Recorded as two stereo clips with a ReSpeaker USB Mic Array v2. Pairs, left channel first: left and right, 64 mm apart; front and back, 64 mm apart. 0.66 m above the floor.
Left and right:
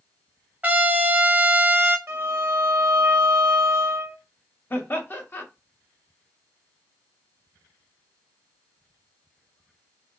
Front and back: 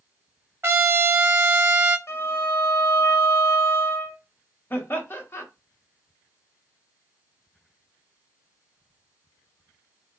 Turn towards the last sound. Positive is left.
turn(degrees=45)